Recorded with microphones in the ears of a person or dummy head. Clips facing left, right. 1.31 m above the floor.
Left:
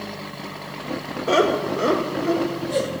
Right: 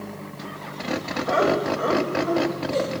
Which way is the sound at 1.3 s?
45° left (ahead or behind).